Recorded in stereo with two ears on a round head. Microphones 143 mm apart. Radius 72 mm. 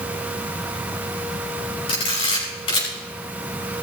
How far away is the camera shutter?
About 6 m.